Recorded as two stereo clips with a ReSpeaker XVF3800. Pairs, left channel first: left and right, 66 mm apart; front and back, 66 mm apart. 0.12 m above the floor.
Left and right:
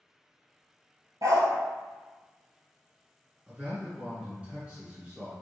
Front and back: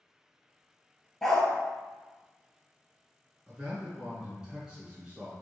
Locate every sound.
1.2 s a dog barking: 80° right, 1.1 m
3.5 s a man speaking: 125° right, 1.5 m